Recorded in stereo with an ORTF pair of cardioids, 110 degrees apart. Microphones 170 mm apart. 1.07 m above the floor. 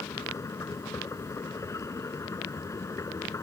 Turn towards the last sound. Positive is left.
turn(degrees=20)